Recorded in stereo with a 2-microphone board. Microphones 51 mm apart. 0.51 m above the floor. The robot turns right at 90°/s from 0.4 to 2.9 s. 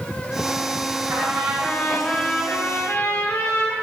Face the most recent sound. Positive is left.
turn(degrees=95)